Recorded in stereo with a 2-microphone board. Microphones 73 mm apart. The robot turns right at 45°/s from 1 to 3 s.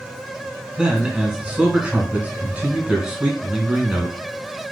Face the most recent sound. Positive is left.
turn(degrees=-10)  # may be behind; listen again after turning